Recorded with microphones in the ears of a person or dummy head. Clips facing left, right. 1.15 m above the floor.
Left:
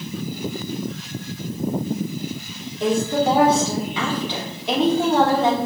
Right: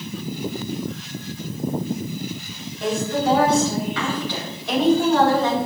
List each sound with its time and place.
2.8 s a woman speaking: 15° left (ahead or behind), 3.5 m